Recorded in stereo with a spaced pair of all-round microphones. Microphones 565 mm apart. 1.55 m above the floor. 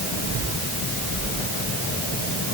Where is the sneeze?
I don't hear a sneeze.